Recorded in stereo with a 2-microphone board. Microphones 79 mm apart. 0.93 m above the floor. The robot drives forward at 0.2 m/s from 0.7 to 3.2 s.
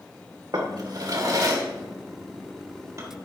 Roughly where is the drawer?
Right.